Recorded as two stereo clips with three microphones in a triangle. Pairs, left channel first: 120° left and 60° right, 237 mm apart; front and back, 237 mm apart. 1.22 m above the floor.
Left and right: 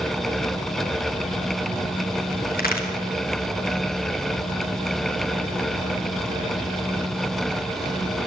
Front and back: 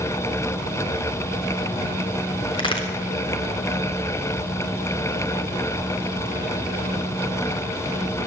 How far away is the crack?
About 3 m.